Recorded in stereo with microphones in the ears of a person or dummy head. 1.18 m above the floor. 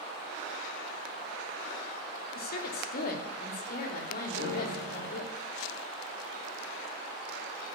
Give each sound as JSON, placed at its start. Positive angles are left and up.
{"t": 2.4, "sound": "a woman speaking", "side_deg": 55, "distance_m": 3.0}
{"t": 4.3, "sound": "a piano", "side_deg": 85, "distance_m": 5.0}